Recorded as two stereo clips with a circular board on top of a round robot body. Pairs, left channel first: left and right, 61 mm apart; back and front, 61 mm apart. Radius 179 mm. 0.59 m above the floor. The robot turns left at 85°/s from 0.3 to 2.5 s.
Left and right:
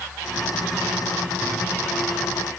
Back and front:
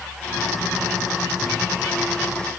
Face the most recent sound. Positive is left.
No sound to turn to.